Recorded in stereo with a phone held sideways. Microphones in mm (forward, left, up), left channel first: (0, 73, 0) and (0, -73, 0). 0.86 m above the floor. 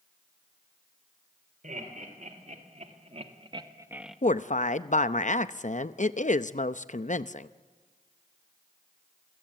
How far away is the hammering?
No hammering in this recording.